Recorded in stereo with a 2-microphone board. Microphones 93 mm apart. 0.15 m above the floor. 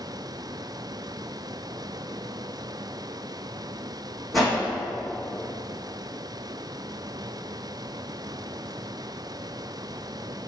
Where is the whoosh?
Centre (ahead or behind), 1.9 m.